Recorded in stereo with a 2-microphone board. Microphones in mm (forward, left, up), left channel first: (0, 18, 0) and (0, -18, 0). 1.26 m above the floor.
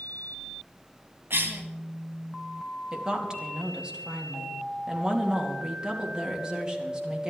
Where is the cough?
85° right, 2.5 m.